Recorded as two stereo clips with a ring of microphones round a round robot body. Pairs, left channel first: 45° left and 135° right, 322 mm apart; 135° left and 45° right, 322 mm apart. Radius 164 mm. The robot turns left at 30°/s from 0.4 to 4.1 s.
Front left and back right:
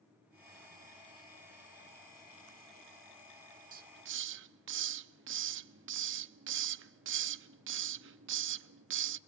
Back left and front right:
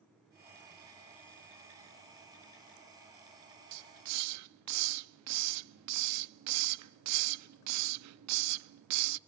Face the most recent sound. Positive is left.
turn(degrees=-85)